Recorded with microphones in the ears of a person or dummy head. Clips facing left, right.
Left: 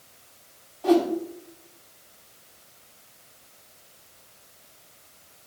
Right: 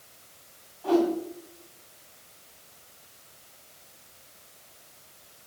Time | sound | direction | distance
0.8 | a whoosh | 60° left (ahead or behind) | 3 m